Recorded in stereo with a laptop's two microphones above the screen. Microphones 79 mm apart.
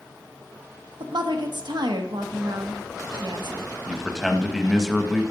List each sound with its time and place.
1.0 s a woman speaking: 70° right (ahead or behind), 1.0 m
3.9 s a man speaking: 5° right (ahead or behind), 0.8 m